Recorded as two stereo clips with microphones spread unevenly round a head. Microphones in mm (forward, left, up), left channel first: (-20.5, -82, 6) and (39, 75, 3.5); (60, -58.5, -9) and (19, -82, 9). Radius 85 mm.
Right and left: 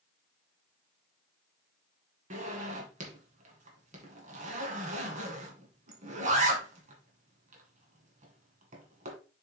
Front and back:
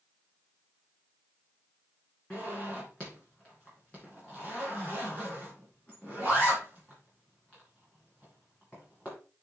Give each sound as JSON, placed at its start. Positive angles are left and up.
{"t": 2.3, "sound": "a zipper", "azimuth_deg": 120, "distance_m": 2.0}